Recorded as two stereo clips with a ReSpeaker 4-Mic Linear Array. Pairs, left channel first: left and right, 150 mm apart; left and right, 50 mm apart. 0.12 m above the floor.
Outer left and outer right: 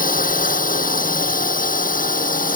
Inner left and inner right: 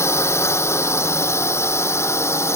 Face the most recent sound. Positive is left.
turn(degrees=65)  # may be behind; listen again after turning